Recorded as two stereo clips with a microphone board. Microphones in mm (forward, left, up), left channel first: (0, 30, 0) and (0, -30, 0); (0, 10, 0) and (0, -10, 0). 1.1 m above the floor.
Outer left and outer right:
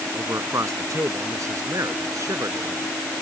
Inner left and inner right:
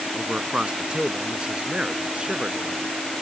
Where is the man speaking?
55° right (ahead or behind); by 2.8 s 60° right (ahead or behind).